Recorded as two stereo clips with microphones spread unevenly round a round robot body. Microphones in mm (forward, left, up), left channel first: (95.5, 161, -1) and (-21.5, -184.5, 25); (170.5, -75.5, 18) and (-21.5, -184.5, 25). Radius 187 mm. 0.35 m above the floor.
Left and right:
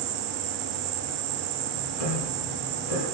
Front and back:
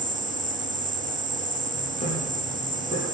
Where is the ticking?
105° left, 8.5 m.